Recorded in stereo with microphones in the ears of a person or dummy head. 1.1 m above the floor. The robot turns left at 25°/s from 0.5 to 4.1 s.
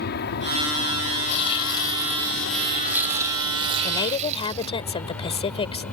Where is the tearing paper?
30° left; by 4.8 s 40° right.